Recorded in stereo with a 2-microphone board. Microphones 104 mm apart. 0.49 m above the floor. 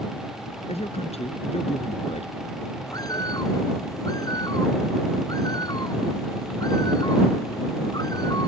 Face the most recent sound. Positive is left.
turn(degrees=35)  # may be behind; listen again after turning